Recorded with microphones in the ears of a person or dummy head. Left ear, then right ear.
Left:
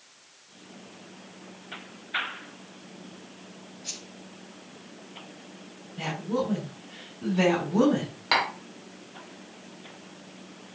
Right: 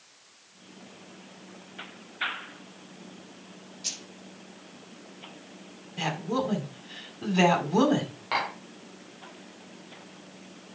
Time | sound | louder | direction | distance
3.8 | keys jangling | right 4 dB | 70° right (ahead or behind) | 5 m
6.0 | a woman speaking | even | 60° right (ahead or behind) | 4 m
8.3 | tapping | left 4 dB | 35° left (ahead or behind) | 3.5 m